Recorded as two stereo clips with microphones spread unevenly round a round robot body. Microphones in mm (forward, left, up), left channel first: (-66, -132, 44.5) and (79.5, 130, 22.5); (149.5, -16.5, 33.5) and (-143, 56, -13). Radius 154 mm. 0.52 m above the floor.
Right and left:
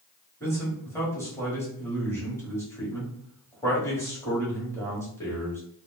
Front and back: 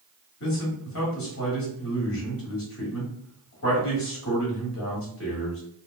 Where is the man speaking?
35° right, 1.4 m.